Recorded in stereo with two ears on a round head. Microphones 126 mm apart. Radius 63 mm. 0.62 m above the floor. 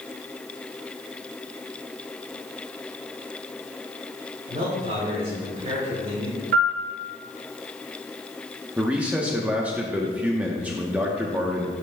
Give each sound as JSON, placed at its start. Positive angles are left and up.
{"t": 4.5, "sound": "a man speaking", "side_deg": -50, "distance_m": 3.0}
{"t": 6.5, "sound": "a piano", "side_deg": -65, "distance_m": 1.4}
{"t": 8.8, "sound": "a man speaking", "side_deg": -10, "distance_m": 0.8}